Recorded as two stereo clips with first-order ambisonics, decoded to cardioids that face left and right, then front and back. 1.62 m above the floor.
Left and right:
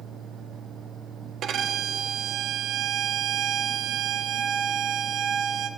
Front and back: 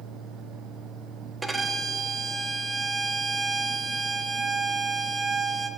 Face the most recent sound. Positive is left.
turn(degrees=-110)